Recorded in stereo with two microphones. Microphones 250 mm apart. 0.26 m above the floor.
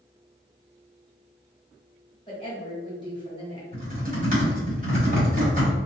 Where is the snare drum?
I don't hear a snare drum.